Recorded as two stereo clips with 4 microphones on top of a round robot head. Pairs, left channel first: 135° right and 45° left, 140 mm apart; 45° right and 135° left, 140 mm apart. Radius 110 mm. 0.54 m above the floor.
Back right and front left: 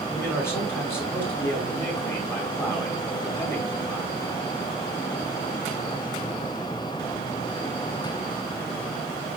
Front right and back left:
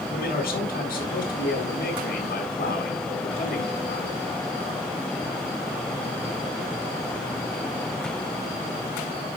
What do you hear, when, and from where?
0.1 s a man speaking: 60° right, 4.5 m